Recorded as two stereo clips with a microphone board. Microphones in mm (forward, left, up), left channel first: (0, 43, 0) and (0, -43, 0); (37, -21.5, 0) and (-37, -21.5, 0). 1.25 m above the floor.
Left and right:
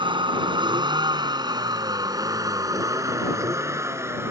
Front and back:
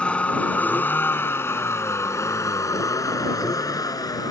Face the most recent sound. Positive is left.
turn(degrees=-30)